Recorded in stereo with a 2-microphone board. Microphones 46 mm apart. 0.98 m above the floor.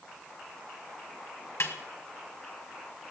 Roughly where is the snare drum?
Left.